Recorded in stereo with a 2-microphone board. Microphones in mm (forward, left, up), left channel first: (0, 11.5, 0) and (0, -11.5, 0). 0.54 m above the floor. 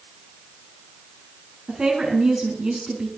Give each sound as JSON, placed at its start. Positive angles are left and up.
{"t": 1.7, "sound": "a woman speaking", "side_deg": -35, "distance_m": 5.5}